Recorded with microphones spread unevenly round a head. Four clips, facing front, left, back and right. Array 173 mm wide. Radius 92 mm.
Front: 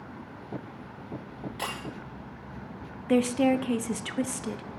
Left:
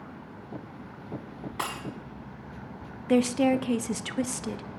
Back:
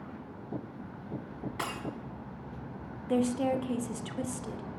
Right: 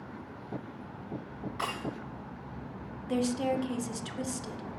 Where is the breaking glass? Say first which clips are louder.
Left 2 dB, front 1 dB; 130° left, 6.5 m.